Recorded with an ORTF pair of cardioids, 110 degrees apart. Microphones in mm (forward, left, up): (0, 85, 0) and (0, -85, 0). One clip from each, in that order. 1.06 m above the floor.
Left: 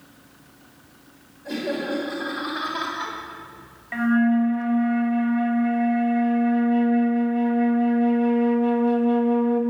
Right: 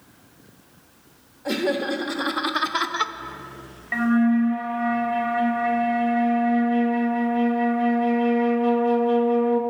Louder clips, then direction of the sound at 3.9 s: Even; 15° right.